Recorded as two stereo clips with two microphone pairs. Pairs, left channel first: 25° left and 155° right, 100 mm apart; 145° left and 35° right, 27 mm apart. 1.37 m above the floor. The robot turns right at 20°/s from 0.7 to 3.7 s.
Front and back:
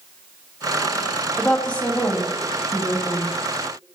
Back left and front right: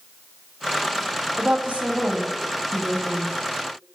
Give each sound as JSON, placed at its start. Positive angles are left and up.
{"t": 1.4, "sound": "a woman speaking", "azimuth_deg": -60, "distance_m": 0.7}